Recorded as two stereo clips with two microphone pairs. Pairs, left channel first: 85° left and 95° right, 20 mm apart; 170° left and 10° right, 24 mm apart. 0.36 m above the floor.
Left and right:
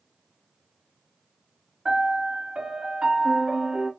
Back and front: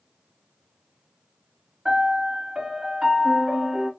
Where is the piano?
70° right, 1.4 m.